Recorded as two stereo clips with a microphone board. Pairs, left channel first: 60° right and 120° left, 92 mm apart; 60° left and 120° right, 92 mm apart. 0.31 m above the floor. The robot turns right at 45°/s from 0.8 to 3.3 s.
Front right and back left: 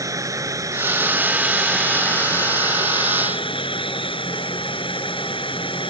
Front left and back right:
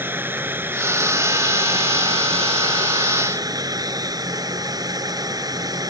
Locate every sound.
0.0 s running water: 175° left; by 5.9 s 75° right